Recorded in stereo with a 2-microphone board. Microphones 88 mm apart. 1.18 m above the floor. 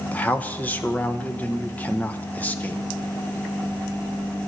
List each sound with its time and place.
0.1 s a man speaking: 20° left (ahead or behind), 1.0 m